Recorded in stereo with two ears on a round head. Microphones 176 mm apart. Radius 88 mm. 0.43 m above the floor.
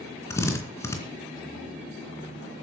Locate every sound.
0.3 s a drill: 15° left (ahead or behind), 3 m